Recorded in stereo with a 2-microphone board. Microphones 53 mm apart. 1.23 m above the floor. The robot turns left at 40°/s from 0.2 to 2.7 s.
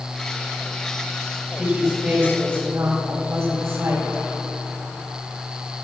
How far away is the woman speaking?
About 7 m.